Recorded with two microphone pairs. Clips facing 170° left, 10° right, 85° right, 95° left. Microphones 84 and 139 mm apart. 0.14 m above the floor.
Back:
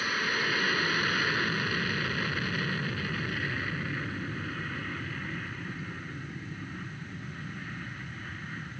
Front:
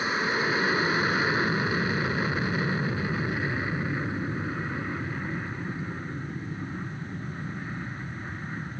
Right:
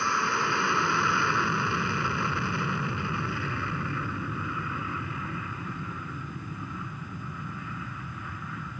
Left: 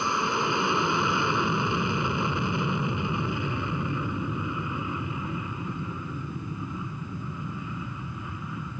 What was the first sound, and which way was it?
An aircraft, 40° left.